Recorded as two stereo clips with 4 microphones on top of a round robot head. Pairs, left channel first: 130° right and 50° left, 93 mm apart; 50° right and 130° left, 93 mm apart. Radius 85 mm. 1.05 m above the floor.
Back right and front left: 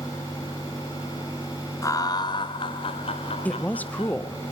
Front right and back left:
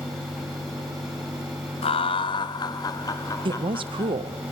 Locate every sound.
1.8 s laughter: 70° right, 1.2 m; by 4.2 s 120° right, 2.5 m
3.5 s a woman speaking: 155° left, 0.7 m